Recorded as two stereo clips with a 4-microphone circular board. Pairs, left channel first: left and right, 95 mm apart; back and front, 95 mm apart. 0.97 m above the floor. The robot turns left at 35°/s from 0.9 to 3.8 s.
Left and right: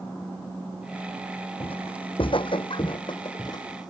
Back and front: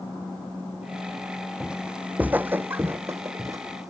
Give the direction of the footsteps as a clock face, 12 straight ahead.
9 o'clock.